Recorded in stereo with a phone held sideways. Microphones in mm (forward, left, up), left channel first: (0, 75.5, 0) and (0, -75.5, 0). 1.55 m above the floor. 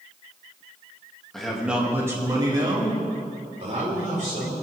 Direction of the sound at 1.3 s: 5° left (ahead or behind).